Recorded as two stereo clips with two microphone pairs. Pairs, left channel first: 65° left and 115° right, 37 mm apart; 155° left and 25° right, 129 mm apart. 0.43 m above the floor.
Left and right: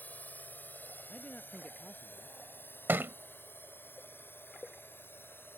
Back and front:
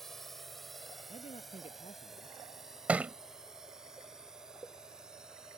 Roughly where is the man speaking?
Behind left.